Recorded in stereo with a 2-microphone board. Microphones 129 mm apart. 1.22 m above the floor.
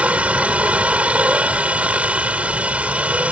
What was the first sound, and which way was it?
A helicopter, 10° right (ahead or behind).